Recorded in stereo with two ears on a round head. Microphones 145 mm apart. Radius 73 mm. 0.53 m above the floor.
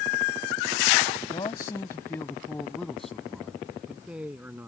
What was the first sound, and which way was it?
A man speaking, 25° left (ahead or behind).